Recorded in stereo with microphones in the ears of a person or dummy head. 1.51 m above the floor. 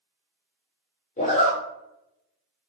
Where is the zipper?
35° left (ahead or behind), 0.8 m.